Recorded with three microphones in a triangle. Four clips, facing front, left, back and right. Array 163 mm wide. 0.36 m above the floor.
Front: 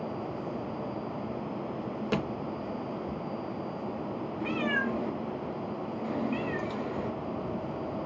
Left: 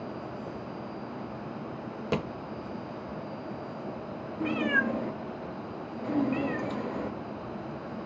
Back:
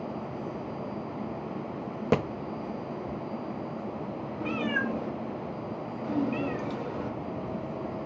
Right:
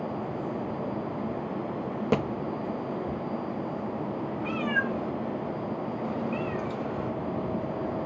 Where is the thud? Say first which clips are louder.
Right 4 dB, back 6 dB; 150° right, 0.5 m.